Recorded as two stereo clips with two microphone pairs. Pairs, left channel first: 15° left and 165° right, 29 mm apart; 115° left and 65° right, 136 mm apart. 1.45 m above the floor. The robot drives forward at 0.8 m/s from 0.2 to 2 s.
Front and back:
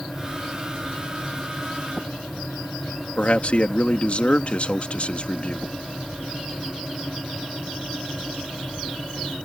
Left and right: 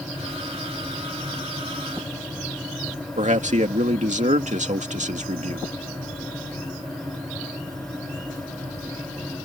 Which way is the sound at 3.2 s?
30° right.